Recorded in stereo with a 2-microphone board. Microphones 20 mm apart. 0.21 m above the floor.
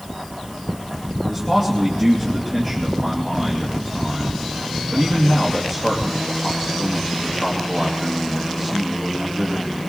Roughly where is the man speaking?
Right.